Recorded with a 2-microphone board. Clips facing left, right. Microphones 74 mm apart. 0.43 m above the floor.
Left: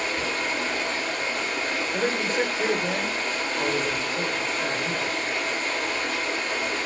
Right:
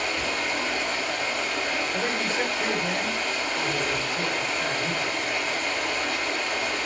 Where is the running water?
35° left (ahead or behind), 2.5 m.